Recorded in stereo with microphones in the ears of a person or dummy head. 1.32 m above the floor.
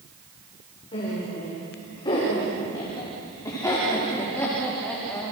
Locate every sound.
0.9 s laughter: 30° left (ahead or behind), 5.5 m; by 5.3 s centre (ahead or behind), 3 m